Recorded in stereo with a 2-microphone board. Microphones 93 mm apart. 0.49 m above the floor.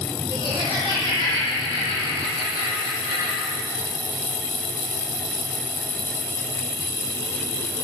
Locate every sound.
0.3 s laughter: 55° right (ahead or behind), 3.5 m